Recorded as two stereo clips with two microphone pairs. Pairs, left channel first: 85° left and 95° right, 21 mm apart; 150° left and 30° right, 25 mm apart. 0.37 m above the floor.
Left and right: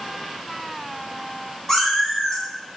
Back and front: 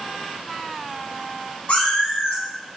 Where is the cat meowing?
160° left, 1.1 m.